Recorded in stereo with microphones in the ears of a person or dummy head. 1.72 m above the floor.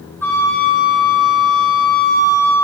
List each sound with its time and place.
0.2 s a flute: 10° left (ahead or behind), 1.1 m